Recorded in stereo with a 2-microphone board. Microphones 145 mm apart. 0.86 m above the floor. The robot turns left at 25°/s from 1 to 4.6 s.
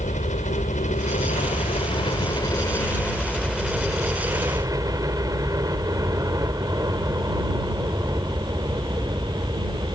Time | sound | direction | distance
0.0 | a helicopter | 65° left | ?